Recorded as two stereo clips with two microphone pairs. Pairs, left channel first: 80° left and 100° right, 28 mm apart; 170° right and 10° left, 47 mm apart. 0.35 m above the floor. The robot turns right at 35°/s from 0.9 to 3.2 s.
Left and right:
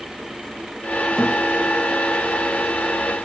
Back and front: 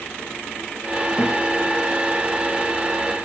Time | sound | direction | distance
1.2 | a thud | 160° left | 9.5 m